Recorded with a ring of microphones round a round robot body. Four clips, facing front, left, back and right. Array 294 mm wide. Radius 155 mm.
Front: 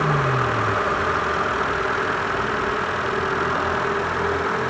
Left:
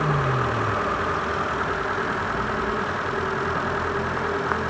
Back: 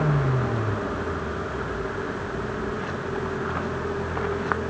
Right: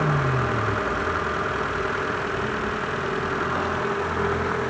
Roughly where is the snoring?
No snoring in this recording.